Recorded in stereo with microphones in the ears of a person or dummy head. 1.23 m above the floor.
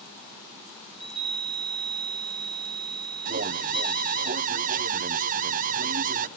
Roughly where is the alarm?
Right.